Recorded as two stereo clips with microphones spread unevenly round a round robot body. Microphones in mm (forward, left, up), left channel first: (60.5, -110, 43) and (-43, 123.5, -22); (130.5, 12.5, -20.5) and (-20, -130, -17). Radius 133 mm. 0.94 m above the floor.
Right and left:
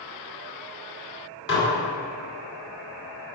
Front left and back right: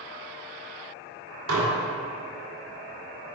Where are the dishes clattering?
115° right, 2 m.